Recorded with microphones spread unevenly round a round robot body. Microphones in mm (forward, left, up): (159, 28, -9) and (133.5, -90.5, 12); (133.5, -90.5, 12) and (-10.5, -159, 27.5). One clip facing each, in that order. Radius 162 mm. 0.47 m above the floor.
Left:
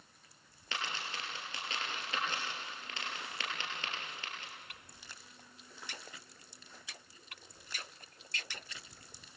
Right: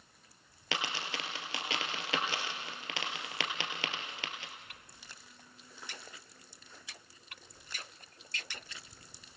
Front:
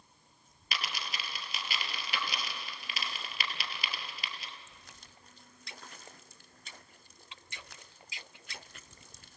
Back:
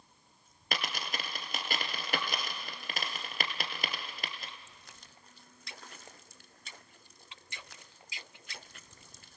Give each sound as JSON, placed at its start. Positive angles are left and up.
{"t": 0.7, "sound": "a dropped coin", "azimuth_deg": -115, "distance_m": 2.5}